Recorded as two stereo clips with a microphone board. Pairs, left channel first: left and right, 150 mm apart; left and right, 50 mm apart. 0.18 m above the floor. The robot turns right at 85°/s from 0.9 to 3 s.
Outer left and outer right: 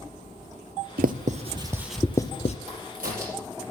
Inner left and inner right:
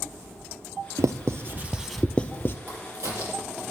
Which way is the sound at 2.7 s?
50° right (ahead or behind).